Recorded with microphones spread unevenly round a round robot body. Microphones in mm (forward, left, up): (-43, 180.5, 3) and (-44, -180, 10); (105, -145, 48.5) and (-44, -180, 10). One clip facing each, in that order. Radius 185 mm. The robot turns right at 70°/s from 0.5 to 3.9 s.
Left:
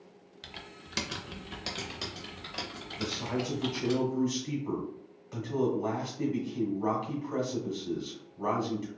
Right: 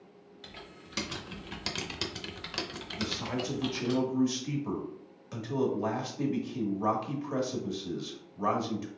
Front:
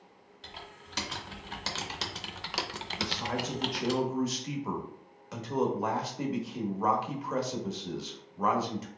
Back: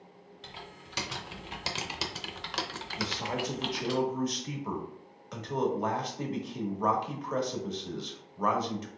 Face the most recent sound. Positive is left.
turn(degrees=-85)